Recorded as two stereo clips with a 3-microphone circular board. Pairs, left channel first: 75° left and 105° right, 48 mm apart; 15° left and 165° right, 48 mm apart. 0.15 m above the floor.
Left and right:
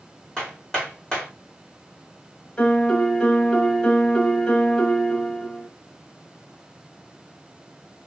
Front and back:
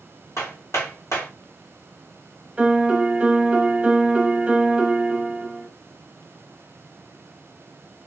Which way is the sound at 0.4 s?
Straight ahead.